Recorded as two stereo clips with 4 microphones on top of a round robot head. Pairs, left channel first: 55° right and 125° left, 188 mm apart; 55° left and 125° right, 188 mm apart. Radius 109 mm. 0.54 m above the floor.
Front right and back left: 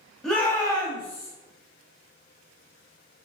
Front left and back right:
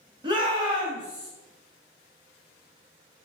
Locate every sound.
0.2 s a shout: 140° right, 1.0 m; by 1.3 s 80° right, 1.1 m